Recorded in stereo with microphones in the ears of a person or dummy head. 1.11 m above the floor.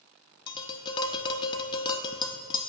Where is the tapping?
30° left (ahead or behind), 0.6 m.